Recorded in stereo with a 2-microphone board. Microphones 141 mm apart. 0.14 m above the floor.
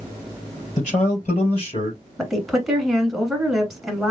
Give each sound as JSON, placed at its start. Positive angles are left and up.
{"t": 0.8, "sound": "a man speaking", "side_deg": 55, "distance_m": 3.0}
{"t": 2.2, "sound": "a woman speaking", "side_deg": 0, "distance_m": 1.1}